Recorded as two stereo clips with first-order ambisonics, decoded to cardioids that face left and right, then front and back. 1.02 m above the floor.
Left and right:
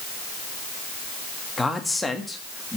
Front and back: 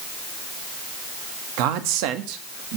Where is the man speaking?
175° left, 1.7 m.